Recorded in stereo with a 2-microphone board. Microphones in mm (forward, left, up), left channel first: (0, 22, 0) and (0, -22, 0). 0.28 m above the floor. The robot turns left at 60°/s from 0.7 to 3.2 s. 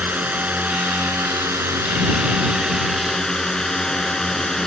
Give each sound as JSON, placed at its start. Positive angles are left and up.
{"t": 0.0, "sound": "a drone", "azimuth_deg": -40}